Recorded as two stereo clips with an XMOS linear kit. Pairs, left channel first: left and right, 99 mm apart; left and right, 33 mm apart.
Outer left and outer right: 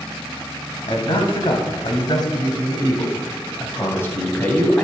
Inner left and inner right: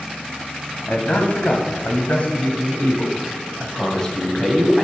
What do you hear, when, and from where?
0.9 s a man speaking: 60° left (ahead or behind), 2.5 m; by 4.8 s 15° left (ahead or behind), 2.5 m